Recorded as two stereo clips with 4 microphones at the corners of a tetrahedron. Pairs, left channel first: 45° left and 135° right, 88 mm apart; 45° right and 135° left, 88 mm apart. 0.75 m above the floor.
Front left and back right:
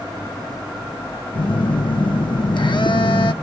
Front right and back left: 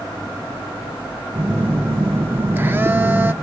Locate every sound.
1.4 s a phone buzzing: 70° left, 0.7 m